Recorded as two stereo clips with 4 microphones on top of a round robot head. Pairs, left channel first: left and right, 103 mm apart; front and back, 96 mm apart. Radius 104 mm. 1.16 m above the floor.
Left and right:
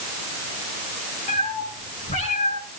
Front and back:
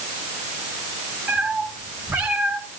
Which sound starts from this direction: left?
A cat meowing, at 1.3 s.